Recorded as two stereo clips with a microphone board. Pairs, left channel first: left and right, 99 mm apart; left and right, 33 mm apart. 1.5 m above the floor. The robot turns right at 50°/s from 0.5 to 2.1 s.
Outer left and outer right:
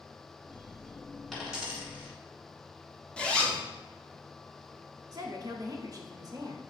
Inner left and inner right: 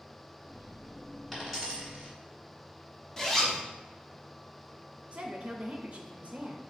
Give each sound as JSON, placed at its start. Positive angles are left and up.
{"t": 1.3, "sound": "a dropped coin", "side_deg": 5, "distance_m": 2.0}
{"t": 3.2, "sound": "a zipper", "side_deg": 10, "distance_m": 0.7}
{"t": 5.1, "sound": "a woman speaking", "side_deg": -45, "distance_m": 0.6}